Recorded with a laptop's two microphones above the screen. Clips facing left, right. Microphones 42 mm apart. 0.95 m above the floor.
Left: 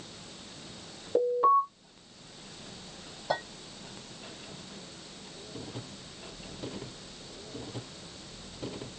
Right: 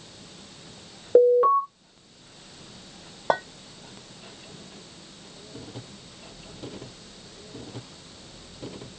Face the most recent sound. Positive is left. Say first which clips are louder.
# right 7 dB
turn(degrees=-60)  # may be behind; listen again after turning